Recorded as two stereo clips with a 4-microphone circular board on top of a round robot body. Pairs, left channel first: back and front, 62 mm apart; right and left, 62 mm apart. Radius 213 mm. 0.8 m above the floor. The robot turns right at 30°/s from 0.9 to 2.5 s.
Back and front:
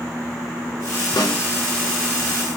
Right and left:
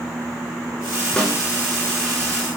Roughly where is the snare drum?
Behind.